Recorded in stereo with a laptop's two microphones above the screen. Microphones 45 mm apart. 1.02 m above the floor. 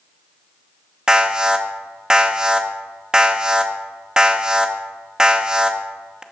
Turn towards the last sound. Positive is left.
turn(degrees=-15)  # may be behind; listen again after turning